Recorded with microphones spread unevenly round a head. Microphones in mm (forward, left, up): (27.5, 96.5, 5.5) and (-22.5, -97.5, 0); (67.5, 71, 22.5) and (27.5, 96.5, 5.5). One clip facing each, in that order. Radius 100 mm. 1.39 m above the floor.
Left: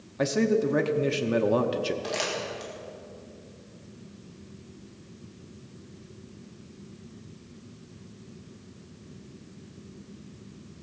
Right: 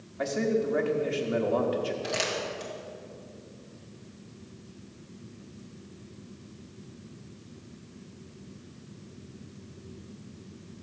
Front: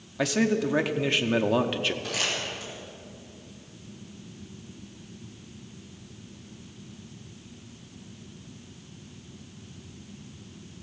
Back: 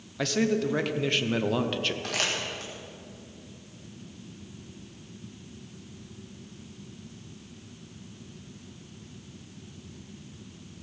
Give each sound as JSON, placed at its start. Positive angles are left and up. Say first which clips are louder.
{"t": 0.2, "sound": "a man speaking", "louder": "left 3 dB, front 1 dB", "azimuth_deg": 55, "distance_m": 0.8}
{"t": 2.0, "sound": "crumpling", "louder": "even, even", "azimuth_deg": 170, "distance_m": 2.0}